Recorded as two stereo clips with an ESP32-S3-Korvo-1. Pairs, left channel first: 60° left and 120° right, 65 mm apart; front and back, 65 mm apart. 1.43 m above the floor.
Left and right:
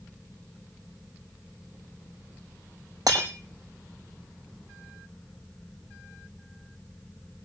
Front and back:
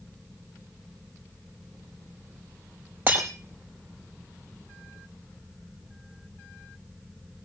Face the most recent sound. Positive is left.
turn(degrees=-125)